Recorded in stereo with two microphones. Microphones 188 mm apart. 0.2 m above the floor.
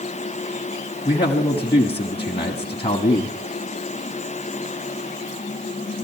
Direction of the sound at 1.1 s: 30° left (ahead or behind).